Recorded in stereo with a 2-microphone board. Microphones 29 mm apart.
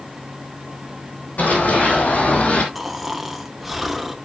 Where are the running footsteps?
70° left (ahead or behind), 4 m; by 2.6 s 60° left (ahead or behind), 3 m.